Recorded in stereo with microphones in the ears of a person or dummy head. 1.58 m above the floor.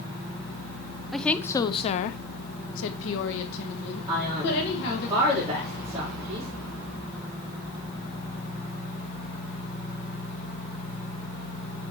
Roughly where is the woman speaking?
Centre.